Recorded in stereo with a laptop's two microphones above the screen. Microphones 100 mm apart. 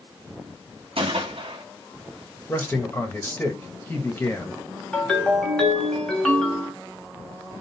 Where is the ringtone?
5° left (ahead or behind), 1.4 m.